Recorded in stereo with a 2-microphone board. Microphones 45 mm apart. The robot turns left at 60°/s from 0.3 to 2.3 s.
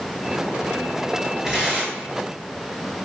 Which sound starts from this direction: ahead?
Tearing paper, at 1.4 s.